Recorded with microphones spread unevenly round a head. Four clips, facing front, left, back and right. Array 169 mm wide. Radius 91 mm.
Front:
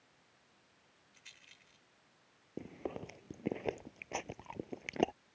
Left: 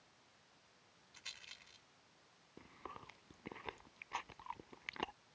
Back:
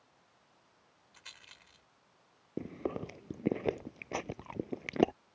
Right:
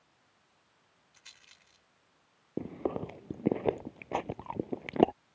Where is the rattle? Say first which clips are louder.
Left 3 dB, back 8 dB; 165° left.